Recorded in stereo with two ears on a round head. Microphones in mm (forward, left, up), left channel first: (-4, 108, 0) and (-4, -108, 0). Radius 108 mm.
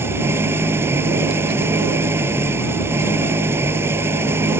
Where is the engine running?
10° right (ahead or behind).